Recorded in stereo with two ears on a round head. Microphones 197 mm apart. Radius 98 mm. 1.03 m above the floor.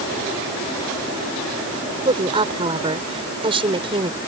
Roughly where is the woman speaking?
Right.